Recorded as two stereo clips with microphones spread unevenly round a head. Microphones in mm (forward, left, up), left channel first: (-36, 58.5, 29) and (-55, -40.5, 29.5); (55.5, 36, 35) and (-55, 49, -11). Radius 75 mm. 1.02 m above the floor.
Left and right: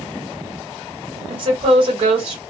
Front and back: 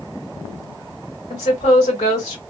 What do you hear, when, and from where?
1.3 s a woman speaking: 65° right, 1.4 m